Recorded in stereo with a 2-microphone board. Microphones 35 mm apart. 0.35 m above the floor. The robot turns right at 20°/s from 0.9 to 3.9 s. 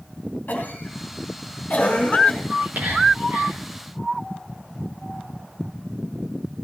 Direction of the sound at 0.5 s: 60° left (ahead or behind).